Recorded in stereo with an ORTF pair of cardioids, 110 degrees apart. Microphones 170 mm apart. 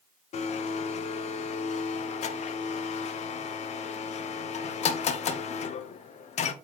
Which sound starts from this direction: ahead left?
A blender, at 0.3 s.